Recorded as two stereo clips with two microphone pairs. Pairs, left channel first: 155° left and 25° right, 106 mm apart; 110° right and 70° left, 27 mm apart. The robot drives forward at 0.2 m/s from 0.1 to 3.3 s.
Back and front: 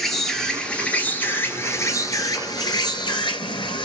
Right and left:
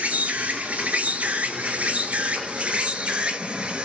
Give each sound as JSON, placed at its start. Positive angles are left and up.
{"t": 0.0, "sound": "an insect", "azimuth_deg": 65, "distance_m": 0.8}